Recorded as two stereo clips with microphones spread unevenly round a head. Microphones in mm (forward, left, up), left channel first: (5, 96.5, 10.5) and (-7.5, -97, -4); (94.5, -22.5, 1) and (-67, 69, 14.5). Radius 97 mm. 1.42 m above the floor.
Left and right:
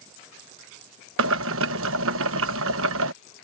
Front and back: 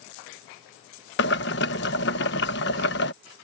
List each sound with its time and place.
1.2 s boiling: 70° right